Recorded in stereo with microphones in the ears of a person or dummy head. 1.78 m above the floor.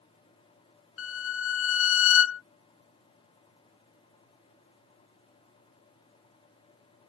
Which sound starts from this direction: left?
A violin, at 1.0 s.